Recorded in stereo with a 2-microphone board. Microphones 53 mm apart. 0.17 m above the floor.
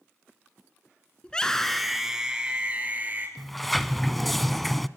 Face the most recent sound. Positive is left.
turn(degrees=0)  # may be behind; listen again after turning